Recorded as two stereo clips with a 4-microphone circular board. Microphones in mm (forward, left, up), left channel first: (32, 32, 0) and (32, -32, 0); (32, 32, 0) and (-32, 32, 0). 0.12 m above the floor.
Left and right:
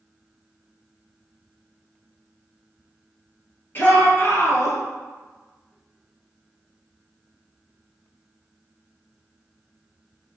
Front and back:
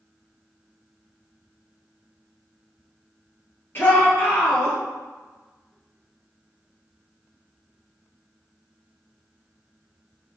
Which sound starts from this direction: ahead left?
A shout, at 3.8 s.